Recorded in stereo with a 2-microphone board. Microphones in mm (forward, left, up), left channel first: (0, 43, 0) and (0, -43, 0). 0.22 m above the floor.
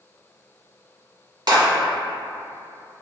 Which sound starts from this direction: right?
A clap, at 1.5 s.